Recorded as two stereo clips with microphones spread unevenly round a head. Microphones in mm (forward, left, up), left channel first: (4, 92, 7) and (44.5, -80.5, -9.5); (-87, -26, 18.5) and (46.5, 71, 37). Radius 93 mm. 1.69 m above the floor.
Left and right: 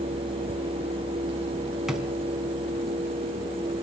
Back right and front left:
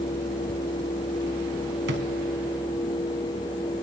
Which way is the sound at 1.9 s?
15° left.